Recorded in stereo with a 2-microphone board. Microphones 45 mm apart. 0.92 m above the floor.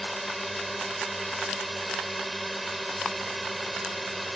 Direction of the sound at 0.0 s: Centre (ahead or behind).